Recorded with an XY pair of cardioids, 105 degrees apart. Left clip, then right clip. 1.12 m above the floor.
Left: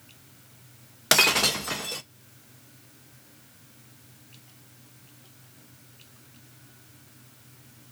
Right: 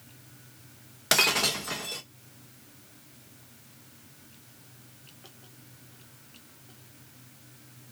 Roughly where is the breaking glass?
Ahead left.